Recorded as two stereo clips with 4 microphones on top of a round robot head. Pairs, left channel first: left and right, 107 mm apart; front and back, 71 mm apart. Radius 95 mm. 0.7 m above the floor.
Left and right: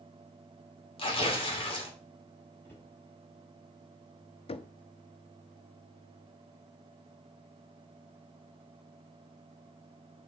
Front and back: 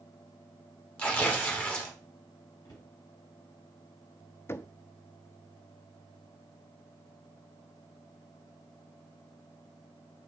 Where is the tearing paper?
65° left, 1.9 m.